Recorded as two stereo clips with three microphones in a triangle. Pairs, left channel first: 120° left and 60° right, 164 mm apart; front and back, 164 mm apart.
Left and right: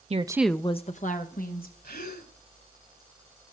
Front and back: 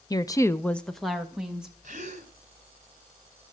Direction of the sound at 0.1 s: 55° right.